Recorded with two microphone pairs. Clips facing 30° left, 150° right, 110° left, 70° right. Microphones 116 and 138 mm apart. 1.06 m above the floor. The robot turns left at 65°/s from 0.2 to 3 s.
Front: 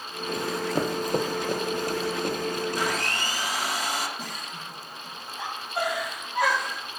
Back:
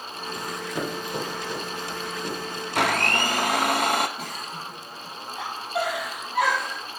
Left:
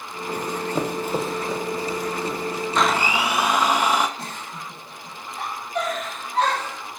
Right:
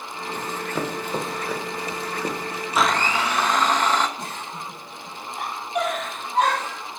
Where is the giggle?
145° right, 4 m.